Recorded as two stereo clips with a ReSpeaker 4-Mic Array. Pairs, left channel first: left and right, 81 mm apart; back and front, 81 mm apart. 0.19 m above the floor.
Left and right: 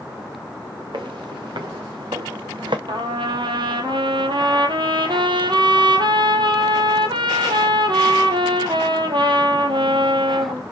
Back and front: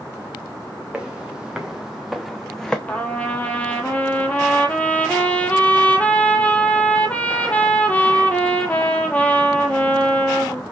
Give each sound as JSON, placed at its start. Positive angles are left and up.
{"t": 0.9, "sound": "footsteps", "azimuth_deg": -80, "distance_m": 1.9}
{"t": 2.9, "sound": "a trumpet", "azimuth_deg": -105, "distance_m": 1.0}